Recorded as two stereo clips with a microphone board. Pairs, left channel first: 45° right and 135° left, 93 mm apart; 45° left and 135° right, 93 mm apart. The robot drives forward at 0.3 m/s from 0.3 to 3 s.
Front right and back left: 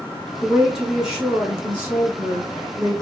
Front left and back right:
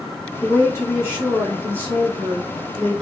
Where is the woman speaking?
50° left, 1.4 m; by 3.0 s 120° left, 1.4 m.